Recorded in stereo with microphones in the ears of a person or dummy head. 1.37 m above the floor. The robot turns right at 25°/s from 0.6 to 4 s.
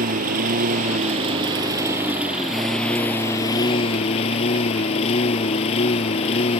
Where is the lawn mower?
45° right; by 6.6 s 40° left.